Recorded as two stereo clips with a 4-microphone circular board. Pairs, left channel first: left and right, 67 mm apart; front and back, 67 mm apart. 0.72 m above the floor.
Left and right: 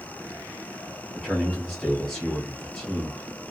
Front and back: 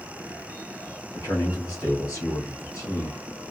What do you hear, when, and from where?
1.1 s a man speaking: 10° left, 1.9 m